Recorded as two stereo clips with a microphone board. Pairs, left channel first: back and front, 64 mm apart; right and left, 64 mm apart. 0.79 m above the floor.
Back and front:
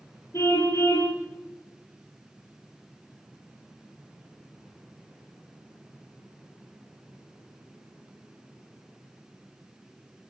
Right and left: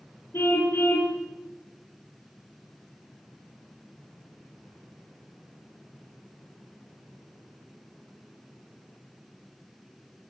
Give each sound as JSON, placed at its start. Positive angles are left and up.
{"t": 0.3, "sound": "a car horn", "azimuth_deg": -140, "distance_m": 7.0}